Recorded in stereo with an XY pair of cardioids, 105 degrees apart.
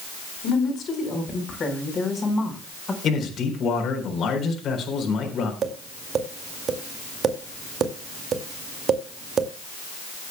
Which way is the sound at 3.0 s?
60° left.